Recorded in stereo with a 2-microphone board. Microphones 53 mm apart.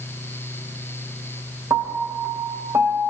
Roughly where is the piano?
Right.